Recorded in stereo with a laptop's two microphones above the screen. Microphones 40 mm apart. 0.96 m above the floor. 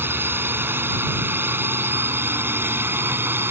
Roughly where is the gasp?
I don't hear a gasp.